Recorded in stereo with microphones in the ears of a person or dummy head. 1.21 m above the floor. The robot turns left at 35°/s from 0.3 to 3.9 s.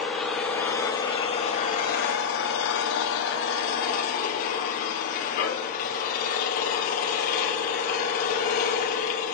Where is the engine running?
175° left, 1.5 m; by 9.4 s 50° left, 1.5 m.